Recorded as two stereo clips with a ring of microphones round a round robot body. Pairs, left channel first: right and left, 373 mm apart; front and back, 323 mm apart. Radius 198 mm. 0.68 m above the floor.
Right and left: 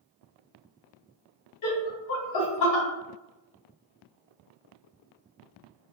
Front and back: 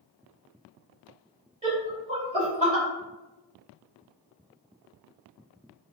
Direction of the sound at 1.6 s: 110° right.